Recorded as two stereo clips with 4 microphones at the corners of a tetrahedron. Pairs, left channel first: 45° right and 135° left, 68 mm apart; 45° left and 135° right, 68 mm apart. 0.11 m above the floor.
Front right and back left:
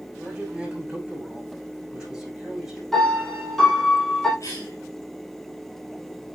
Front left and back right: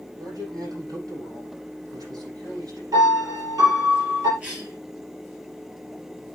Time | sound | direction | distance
0.2 | a man speaking | 150° right | 7 m
2.9 | a piano | 130° right | 4 m
4.4 | a cough | 65° right | 2.5 m